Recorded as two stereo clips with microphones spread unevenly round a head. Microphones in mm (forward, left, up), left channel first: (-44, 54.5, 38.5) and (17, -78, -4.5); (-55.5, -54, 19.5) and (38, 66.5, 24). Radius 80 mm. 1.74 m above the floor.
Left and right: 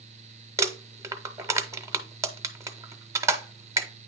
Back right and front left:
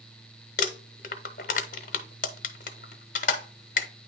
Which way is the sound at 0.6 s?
145° right.